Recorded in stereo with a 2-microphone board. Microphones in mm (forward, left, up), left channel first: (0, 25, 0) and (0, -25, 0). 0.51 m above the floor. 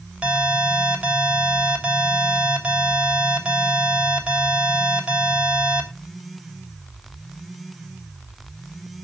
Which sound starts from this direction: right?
An alarm, at 0.2 s.